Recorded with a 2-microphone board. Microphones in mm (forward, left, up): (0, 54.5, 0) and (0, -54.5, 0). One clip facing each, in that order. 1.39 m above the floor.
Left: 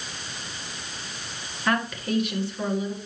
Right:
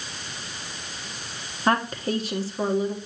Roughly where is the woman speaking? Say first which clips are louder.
Right 2 dB; right.